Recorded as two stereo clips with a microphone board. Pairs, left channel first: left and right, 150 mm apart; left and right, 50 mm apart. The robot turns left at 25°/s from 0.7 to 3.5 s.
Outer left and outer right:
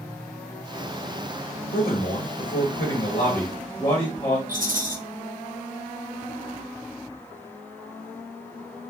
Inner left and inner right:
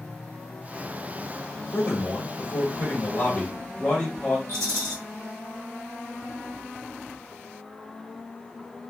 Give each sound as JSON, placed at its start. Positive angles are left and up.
{"t": 1.7, "sound": "a man speaking", "azimuth_deg": 80, "distance_m": 1.0}
{"t": 4.5, "sound": "a rattle", "side_deg": -65, "distance_m": 0.8}